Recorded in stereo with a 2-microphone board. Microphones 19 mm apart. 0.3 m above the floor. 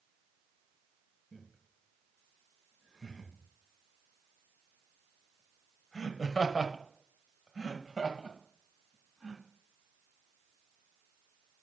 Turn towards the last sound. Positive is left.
turn(degrees=0)  # may be behind; listen again after turning